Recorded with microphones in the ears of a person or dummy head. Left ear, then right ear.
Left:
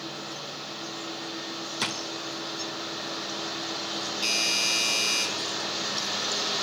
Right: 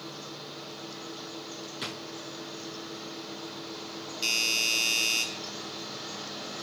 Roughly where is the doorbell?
Centre.